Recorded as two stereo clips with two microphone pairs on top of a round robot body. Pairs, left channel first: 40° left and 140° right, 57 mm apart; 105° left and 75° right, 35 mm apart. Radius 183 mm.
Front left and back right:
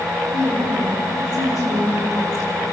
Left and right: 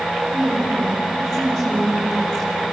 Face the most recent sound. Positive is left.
turn(degrees=35)